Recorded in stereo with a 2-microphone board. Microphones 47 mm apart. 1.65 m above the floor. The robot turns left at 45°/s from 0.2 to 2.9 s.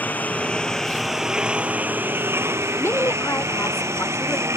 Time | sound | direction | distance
0.0 | a lawn mower | 35° left | ?
2.7 | a woman speaking | 75° left (ahead or behind) | ?